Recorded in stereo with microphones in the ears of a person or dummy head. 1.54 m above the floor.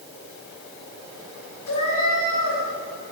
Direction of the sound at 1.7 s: 80° left.